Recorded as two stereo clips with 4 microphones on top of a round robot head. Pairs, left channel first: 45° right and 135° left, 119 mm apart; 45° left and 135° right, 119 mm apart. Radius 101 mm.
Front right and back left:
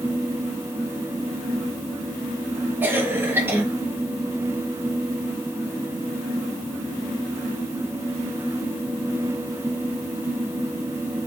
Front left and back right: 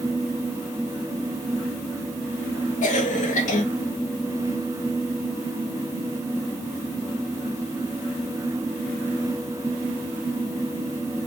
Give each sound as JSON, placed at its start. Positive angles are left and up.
{"t": 2.8, "sound": "a cough", "azimuth_deg": 65, "distance_m": 1.9}